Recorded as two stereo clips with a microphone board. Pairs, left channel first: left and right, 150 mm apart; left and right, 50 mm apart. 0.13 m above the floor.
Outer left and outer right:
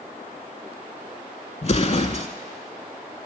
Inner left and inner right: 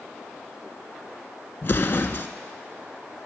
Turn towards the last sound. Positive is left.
turn(degrees=50)  # may be behind; listen again after turning